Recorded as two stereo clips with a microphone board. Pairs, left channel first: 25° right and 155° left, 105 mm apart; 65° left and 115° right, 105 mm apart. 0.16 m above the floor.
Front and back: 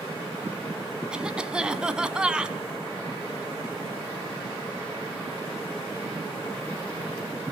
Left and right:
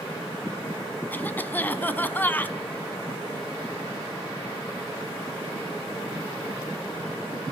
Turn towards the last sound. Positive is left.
turn(degrees=95)